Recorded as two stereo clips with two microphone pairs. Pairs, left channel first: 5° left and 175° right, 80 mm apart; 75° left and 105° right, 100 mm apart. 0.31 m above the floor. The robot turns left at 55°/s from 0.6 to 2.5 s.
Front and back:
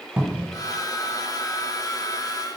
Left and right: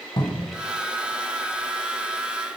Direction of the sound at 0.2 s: 105° left.